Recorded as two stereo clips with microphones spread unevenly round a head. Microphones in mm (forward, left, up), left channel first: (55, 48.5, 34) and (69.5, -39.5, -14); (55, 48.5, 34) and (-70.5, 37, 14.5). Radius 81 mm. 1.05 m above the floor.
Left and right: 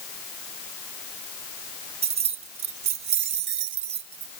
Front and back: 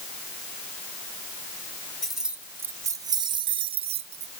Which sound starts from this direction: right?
Keys jangling, at 2.0 s.